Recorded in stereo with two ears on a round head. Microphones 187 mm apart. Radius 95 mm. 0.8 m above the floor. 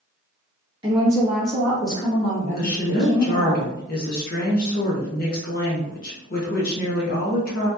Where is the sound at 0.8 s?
25° right (ahead or behind), 0.8 m; by 3.6 s 55° left (ahead or behind), 1.3 m.